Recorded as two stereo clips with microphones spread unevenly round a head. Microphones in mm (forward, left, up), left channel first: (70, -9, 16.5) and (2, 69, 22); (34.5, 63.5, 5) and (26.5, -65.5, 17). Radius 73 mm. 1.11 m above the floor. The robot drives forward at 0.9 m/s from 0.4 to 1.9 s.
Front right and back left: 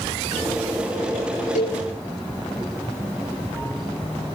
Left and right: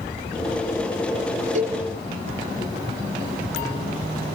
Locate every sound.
1.6 s a cowbell: 70° right, 8 m